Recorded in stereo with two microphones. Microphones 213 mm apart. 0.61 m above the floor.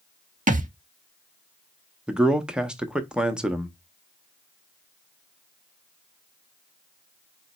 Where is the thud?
35° right (ahead or behind), 0.5 m.